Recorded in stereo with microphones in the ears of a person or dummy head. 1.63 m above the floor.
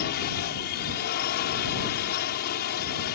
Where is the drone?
45° left (ahead or behind); by 3.1 s 50° left (ahead or behind).